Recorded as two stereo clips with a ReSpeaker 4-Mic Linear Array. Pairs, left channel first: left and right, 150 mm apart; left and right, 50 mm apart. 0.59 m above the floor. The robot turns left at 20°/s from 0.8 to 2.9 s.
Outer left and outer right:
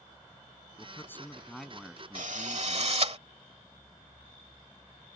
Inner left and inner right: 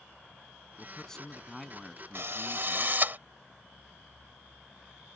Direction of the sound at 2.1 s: 60° right (ahead or behind).